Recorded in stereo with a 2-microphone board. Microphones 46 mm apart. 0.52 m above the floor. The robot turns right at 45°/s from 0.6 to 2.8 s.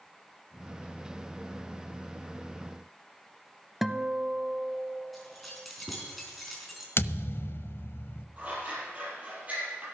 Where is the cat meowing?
I don't hear a cat meowing.